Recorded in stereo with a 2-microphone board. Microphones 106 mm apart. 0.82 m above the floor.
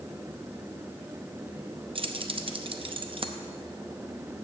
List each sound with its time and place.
1.9 s keys jangling: 55° right (ahead or behind), 0.6 m